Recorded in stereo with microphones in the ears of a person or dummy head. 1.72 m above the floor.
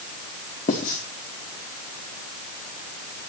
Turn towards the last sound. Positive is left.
turn(degrees=45)  # may be behind; listen again after turning